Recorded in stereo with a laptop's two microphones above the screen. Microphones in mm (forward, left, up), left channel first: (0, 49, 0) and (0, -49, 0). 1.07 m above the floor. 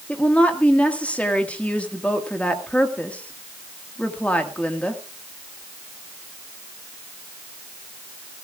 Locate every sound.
0.1 s a woman speaking: 15° left (ahead or behind), 1.8 m